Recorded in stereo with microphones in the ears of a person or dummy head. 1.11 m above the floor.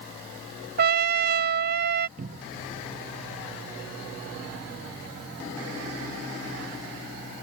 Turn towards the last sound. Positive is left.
turn(degrees=-40)  # may be behind; listen again after turning